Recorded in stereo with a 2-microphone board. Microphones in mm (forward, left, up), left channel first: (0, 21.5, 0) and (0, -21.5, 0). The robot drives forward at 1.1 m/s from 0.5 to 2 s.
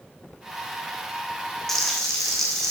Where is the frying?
5° left (ahead or behind), 3 m.